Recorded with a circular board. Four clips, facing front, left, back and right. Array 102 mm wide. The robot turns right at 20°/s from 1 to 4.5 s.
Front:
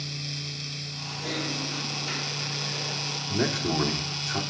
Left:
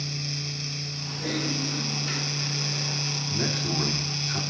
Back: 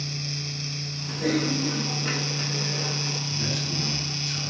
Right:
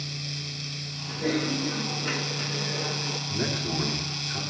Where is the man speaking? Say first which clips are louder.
Left 1 dB, front 5 dB; 5° right, 3 m; by 4.4 s 20° left, 3 m.